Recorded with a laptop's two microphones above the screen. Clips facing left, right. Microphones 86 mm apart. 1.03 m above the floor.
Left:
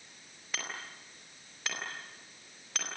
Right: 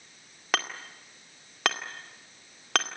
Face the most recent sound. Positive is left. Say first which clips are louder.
# right 10 dB
turn(degrees=-90)